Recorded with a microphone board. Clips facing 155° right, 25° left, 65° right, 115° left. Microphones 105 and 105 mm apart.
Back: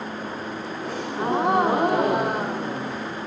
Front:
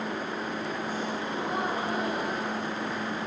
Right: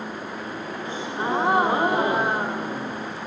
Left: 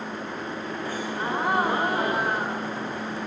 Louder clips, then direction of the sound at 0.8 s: Back 6 dB, right 3 dB; 135° right.